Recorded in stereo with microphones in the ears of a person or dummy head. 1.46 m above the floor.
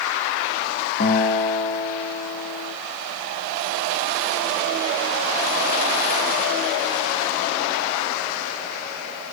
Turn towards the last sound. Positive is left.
turn(degrees=60)  # may be behind; listen again after turning